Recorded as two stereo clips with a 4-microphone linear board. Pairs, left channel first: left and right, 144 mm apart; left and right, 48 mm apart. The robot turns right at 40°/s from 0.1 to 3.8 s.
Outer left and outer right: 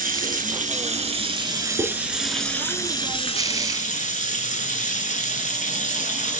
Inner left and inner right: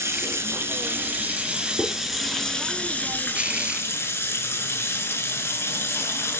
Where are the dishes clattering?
45° right (ahead or behind), 3 m; by 1.9 s 40° right (ahead or behind), 3 m.